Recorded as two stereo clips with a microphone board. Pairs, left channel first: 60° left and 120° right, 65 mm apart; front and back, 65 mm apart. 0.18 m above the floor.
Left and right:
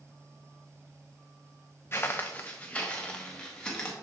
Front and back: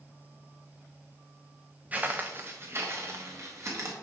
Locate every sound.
1.9 s footsteps: 115° left, 0.8 m; by 3.9 s 135° left, 2.5 m